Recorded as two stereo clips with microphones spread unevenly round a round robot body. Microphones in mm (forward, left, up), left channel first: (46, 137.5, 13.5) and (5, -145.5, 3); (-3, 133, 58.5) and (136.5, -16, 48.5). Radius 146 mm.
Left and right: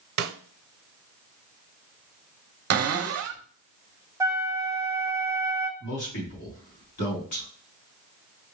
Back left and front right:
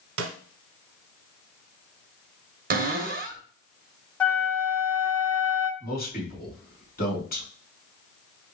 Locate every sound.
0.2 s a snare drum: 65° right, 0.9 m
2.7 s a cupboard door: 85° right, 0.9 m
4.2 s a flute: 150° right, 0.7 m
5.8 s a man speaking: 100° left, 2.5 m